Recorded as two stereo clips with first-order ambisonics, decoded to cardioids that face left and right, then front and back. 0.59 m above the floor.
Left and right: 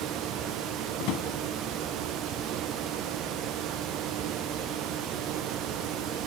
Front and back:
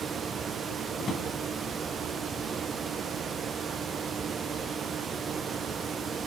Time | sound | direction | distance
1.0 | a drawer | 65° left | 2.5 m